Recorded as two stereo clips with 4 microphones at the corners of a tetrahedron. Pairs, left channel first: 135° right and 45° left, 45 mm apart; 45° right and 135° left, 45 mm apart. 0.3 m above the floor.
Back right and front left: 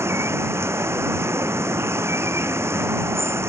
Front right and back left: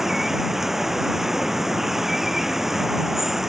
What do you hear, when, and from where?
0.0 s running water: 55° left